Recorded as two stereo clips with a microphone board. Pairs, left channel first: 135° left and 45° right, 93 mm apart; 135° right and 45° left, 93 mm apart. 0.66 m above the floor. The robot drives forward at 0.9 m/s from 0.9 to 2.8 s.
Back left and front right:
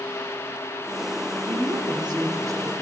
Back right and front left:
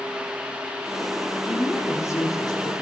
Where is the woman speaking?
65° right, 2 m; by 2.7 s 100° right, 1.9 m.